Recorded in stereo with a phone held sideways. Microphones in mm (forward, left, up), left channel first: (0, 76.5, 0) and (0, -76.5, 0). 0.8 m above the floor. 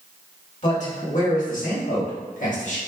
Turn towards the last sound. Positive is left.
turn(degrees=55)  # may be behind; listen again after turning